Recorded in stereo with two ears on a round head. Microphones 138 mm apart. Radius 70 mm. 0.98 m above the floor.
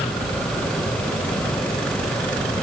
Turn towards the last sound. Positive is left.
No sound to turn to.